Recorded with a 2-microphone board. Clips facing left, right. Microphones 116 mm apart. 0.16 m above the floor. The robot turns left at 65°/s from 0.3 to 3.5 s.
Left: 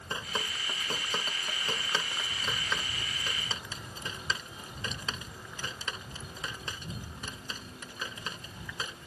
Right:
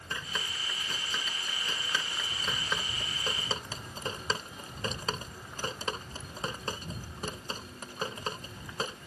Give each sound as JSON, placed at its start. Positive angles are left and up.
{"t": 0.1, "sound": "dripping", "side_deg": 25}